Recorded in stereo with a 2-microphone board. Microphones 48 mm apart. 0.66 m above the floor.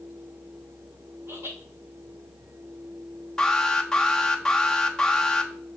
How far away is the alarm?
About 1.0 m.